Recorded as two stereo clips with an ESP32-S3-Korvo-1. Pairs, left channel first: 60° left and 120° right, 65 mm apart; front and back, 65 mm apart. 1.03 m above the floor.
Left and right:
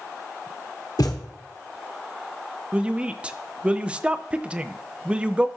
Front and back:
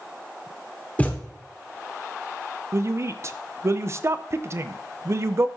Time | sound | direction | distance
1.0 | a thud | 65° left | 1.3 m
2.7 | a woman speaking | 170° left | 0.5 m